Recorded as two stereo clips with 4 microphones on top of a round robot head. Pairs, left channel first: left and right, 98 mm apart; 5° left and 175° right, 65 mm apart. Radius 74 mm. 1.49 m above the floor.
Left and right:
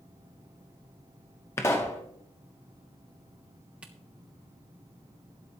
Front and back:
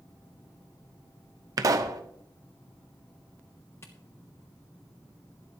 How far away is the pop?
About 0.8 m.